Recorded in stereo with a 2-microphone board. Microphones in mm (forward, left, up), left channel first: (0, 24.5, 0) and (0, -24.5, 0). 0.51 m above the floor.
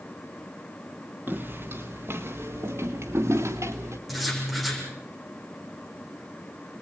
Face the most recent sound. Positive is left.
turn(degrees=0)  # may be behind; listen again after turning